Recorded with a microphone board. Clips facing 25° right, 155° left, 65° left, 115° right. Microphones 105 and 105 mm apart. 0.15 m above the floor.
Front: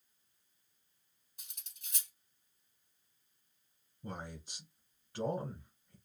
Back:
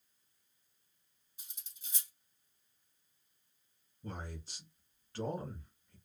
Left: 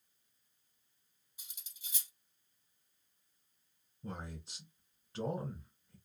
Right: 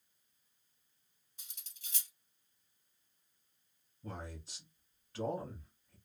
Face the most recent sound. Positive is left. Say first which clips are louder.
# front 1 dB, left 1 dB
turn(degrees=35)